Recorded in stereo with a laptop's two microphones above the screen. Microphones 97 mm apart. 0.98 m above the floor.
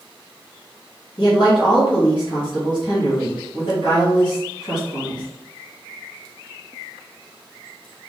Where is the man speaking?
60° left (ahead or behind), 1.3 m.